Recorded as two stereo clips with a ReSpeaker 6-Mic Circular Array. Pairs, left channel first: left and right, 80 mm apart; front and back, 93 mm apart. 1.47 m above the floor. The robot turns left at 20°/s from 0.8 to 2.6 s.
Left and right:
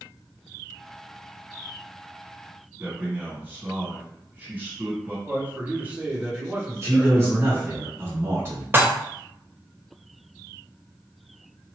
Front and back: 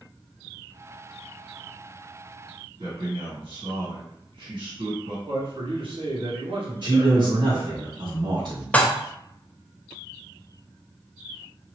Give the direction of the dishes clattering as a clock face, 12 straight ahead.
2 o'clock.